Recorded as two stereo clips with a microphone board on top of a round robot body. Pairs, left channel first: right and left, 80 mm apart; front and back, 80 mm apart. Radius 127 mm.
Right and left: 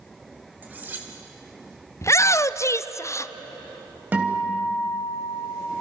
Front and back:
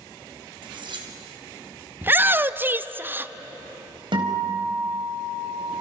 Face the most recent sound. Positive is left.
turn(degrees=160)